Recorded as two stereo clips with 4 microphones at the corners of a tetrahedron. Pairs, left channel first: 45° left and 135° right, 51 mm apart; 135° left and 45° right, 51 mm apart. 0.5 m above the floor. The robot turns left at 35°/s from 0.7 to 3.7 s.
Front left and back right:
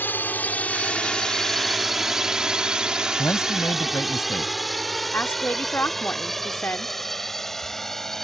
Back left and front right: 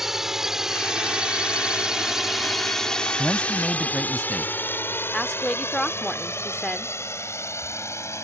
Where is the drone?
35° left; by 8.2 s 130° left.